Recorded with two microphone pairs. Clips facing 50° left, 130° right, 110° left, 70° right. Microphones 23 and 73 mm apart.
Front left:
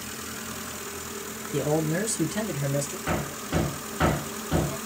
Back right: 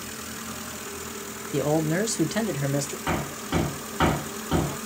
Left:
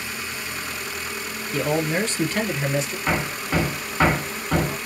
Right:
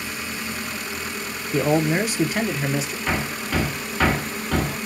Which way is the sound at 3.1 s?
175° left.